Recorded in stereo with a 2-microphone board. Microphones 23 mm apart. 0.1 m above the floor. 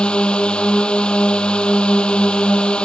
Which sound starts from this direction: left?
A drone, at 0.0 s.